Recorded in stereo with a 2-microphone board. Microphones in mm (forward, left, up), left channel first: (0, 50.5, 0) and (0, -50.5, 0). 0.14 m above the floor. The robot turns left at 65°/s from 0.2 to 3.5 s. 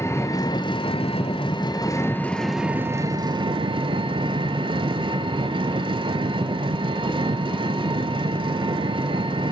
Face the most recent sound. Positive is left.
turn(degrees=-65)